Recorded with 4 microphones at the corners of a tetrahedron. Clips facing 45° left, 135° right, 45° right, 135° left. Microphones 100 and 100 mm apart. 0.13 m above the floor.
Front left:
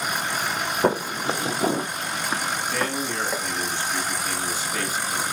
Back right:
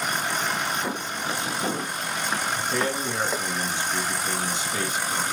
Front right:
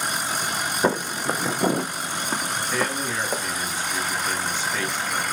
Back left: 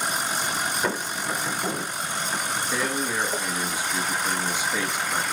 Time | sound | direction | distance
0.8 | footsteps | 10° left | 0.8 m
2.5 | a man speaking | 165° right | 1.4 m